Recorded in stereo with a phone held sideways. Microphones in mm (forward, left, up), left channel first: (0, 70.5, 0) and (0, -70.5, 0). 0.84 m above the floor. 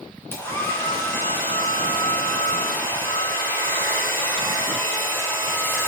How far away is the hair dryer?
About 4 m.